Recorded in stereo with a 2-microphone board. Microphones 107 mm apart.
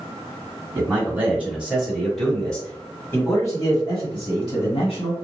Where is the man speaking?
20° right (ahead or behind), 1.8 m; by 5.1 s 55° left (ahead or behind), 1.8 m.